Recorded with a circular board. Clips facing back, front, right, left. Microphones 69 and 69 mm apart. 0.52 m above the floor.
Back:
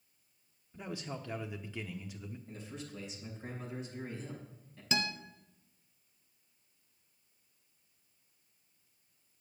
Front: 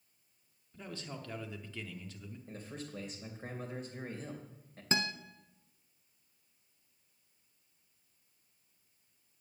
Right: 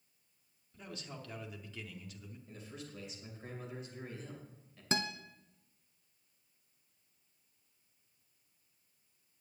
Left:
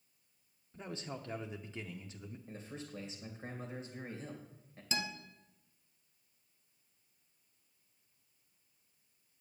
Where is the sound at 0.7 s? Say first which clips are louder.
Back 3 dB, left 4 dB; 120° left, 0.7 m.